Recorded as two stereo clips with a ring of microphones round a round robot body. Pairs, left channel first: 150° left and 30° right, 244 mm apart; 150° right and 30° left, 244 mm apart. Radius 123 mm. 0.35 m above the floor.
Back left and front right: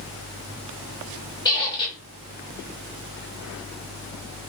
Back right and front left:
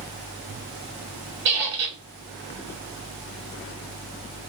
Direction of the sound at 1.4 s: 75° left.